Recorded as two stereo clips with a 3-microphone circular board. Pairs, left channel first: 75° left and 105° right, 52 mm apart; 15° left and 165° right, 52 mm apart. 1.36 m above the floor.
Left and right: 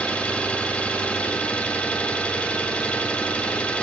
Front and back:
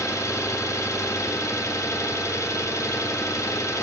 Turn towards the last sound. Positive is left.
turn(degrees=10)